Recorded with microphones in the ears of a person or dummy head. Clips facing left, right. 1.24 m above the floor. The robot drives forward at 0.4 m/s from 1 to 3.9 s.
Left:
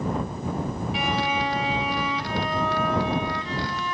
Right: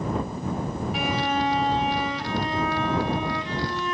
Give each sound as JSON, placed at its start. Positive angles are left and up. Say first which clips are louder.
{"t": 0.9, "sound": "a violin", "louder": "right 1 dB", "side_deg": -5, "distance_m": 0.8}